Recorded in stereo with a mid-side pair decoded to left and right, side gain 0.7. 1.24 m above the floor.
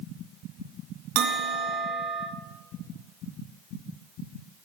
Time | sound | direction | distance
1.1 | a bell | 65° right | 2.5 m